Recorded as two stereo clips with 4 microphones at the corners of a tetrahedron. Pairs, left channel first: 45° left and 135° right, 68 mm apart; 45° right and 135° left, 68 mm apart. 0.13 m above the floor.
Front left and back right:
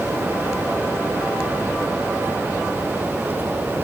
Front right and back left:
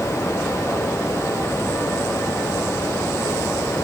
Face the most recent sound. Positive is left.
No sound to turn to.